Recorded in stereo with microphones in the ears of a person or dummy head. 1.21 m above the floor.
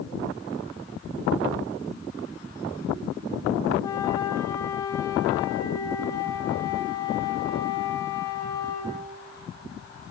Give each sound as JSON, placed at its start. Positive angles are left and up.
{"t": 3.8, "sound": "a flute", "side_deg": 25, "distance_m": 1.9}